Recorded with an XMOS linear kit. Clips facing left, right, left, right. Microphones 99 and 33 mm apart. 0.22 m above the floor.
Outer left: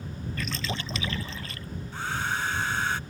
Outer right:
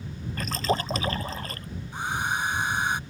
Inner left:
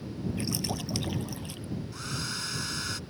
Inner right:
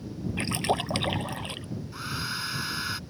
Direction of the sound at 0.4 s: 40° right (ahead or behind).